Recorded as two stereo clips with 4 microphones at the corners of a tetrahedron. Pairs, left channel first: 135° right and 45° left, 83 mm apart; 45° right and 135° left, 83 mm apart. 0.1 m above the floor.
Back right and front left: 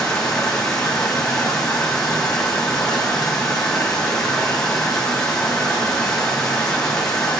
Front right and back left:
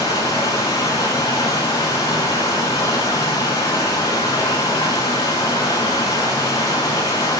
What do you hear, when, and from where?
0.0 s running water: 50° right, 4 m